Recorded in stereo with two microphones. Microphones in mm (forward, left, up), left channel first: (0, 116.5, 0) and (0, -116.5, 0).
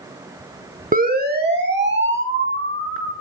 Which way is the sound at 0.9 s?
35° right (ahead or behind).